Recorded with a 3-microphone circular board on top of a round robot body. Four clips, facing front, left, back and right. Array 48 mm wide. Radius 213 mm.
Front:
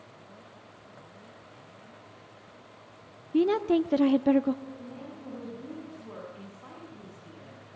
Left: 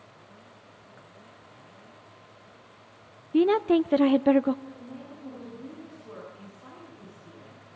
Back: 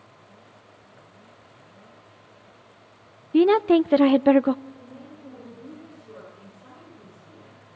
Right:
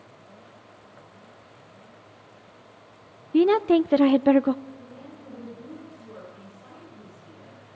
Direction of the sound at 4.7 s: 20° left.